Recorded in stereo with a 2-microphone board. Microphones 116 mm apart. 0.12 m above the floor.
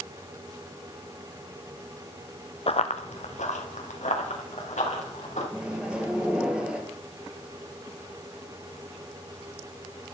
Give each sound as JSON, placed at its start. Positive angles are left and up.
{"t": 2.7, "sound": "running footsteps", "side_deg": 55, "distance_m": 0.7}
{"t": 5.5, "sound": "a microwave", "side_deg": -10, "distance_m": 1.6}